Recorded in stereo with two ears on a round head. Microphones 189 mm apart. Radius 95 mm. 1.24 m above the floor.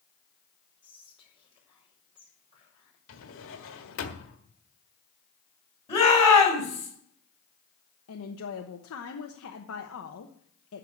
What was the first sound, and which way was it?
Whispering, 25° left (ahead or behind).